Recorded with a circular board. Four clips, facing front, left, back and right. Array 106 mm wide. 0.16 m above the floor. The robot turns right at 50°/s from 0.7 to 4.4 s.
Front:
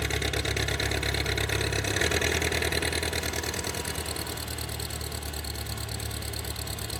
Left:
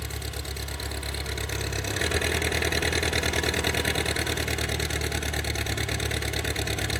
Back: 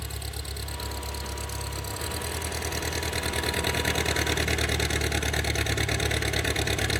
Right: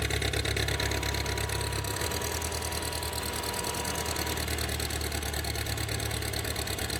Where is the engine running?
35° right, 0.9 m; by 7.0 s 150° left, 0.9 m.